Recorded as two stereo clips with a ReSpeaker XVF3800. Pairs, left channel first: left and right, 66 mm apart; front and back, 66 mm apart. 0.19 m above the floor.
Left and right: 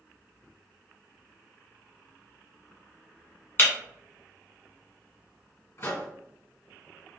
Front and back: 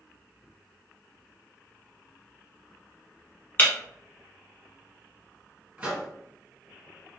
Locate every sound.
3.6 s breaking glass: 50° left, 1.1 m
5.8 s a microwave: 115° left, 1.9 m